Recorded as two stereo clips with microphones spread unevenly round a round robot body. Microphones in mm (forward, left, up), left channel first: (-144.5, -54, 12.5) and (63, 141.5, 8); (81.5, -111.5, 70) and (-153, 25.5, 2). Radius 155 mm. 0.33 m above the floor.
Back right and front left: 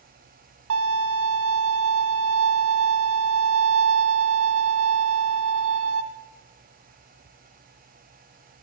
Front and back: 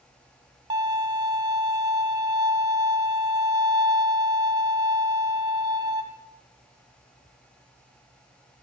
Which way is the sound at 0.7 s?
80° left.